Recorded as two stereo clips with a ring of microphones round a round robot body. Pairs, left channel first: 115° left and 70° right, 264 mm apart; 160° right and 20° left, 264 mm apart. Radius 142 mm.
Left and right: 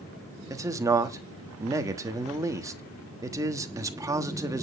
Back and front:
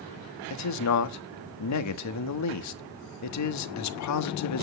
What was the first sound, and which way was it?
A man speaking, 145° right.